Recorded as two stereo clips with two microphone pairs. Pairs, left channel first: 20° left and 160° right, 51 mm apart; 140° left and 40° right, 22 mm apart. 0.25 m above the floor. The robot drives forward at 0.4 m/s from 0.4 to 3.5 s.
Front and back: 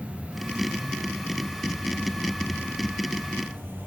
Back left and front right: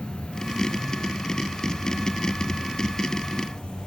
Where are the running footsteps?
No running footsteps in this recording.